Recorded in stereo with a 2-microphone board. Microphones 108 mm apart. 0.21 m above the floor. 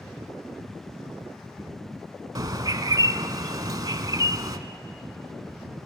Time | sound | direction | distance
2.4 | a bird | 35° right (ahead or behind) | 0.6 m